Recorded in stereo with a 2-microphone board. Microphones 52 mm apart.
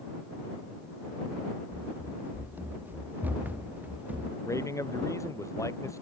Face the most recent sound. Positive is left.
turn(degrees=80)